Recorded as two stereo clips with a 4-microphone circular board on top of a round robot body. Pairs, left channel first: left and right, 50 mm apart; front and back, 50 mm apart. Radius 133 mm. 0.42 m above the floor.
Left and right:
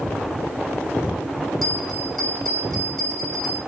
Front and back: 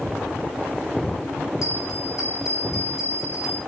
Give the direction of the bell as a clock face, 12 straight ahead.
12 o'clock.